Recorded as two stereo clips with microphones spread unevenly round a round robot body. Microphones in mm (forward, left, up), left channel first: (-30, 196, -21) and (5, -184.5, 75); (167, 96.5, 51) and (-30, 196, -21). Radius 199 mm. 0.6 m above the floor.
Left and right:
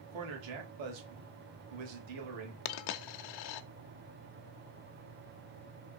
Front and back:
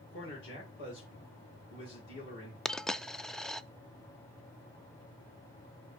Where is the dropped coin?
60° left, 0.5 m.